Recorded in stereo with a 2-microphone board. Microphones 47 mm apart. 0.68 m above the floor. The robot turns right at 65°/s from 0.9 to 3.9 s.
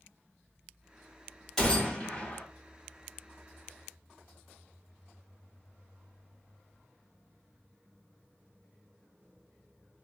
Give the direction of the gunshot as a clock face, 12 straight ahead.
11 o'clock.